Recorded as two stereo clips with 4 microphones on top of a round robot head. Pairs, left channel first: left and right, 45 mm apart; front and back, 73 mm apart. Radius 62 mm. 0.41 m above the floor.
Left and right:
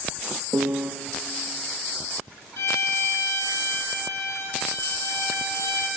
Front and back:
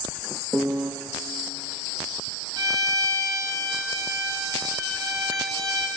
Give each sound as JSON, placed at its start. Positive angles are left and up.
{"t": 0.5, "sound": "a piano", "azimuth_deg": -110, "distance_m": 0.5}
{"t": 2.6, "sound": "a violin", "azimuth_deg": 140, "distance_m": 1.6}